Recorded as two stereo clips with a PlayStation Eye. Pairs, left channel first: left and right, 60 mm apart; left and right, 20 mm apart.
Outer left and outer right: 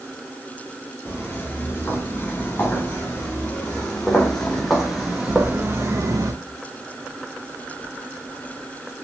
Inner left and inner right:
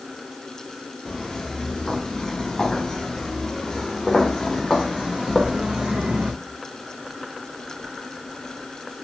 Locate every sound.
1.1 s footsteps: 35° left (ahead or behind), 6 m; by 6.3 s 60° right (ahead or behind), 1.6 m